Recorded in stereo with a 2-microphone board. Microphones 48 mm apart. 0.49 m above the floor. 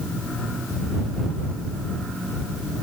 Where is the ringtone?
No ringtone in this recording.